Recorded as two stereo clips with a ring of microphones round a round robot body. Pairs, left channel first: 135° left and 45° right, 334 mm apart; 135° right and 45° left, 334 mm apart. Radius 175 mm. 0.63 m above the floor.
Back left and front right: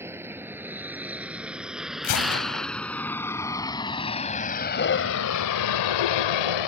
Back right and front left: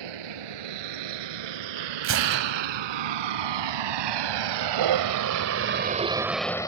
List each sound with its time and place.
0.0 s a vehicle: 40° left; by 6.7 s 145° left
2.0 s a gunshot: 100° left